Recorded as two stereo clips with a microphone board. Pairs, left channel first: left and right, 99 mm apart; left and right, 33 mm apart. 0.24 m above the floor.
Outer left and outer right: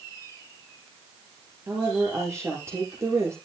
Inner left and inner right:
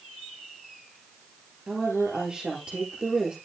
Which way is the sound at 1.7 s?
30° right (ahead or behind).